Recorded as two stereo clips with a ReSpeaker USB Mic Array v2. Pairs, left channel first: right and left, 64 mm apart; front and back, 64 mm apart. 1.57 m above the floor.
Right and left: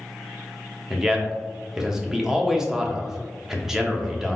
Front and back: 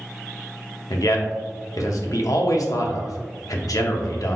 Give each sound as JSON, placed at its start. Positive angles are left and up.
{"t": 0.9, "sound": "a man speaking", "azimuth_deg": 10, "distance_m": 0.6}